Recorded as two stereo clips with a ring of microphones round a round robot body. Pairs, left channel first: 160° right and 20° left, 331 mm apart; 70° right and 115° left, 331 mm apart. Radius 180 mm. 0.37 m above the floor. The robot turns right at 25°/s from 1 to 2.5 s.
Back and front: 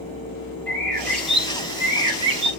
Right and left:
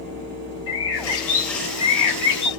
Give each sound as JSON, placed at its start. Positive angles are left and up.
{"t": 0.7, "sound": "a bird", "azimuth_deg": -75, "distance_m": 1.6}